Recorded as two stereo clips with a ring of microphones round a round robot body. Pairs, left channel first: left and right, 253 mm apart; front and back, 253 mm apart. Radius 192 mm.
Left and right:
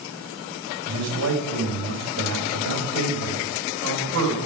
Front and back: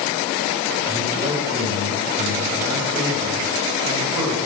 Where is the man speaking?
100° right, 3.5 m.